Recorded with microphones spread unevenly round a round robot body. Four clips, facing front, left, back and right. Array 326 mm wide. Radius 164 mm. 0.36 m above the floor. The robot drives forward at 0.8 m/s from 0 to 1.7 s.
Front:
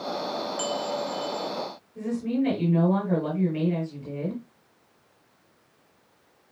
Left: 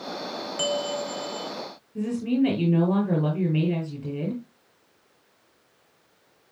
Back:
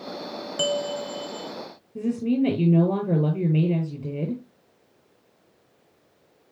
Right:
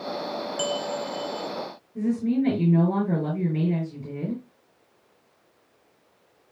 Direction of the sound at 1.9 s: 170° left.